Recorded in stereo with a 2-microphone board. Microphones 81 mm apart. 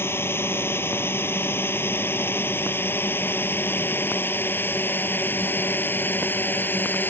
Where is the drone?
30° left (ahead or behind); by 7.1 s 25° left (ahead or behind).